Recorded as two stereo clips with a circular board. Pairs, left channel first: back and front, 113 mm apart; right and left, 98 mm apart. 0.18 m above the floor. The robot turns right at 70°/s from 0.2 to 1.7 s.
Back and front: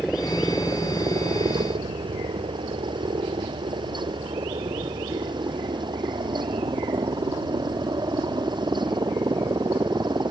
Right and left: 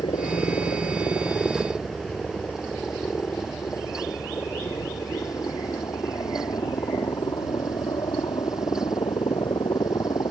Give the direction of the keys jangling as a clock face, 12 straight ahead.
I don't hear keys jangling.